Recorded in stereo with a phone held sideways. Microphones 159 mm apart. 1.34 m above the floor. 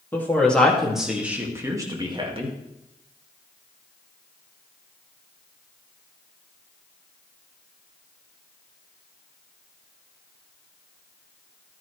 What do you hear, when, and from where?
0.1 s a woman speaking: 10° left (ahead or behind), 2.5 m; by 2.6 s 40° right (ahead or behind), 2 m